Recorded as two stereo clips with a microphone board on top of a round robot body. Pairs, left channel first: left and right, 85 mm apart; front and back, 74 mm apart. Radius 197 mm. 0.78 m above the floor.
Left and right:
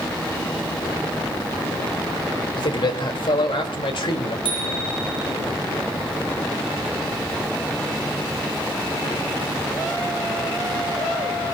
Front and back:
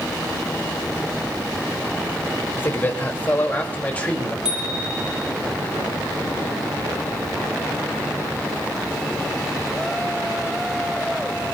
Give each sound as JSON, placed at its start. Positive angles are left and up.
{"t": 2.6, "sound": "a man speaking", "azimuth_deg": 60, "distance_m": 3.5}
{"t": 4.5, "sound": "a bicycle bell", "azimuth_deg": 100, "distance_m": 6.5}